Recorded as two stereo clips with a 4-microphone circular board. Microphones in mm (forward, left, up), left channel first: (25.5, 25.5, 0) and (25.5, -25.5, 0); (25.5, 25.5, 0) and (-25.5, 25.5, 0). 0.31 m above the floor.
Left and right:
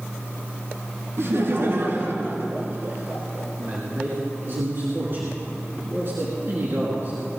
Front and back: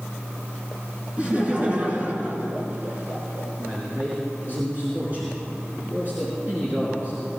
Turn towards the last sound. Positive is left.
turn(degrees=-125)